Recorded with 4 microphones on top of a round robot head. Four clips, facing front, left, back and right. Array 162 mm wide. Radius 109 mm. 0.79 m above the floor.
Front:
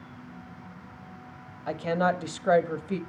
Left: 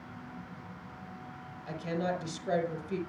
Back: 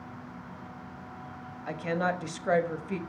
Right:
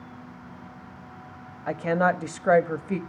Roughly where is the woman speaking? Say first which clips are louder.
Right 10 dB, front 4 dB; ahead right.